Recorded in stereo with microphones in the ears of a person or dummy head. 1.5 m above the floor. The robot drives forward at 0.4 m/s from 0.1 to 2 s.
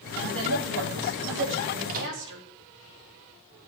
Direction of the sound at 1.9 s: 45° right (ahead or behind).